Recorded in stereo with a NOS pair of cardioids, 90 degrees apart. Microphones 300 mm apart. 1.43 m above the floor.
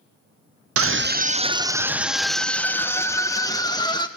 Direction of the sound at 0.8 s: 55° right.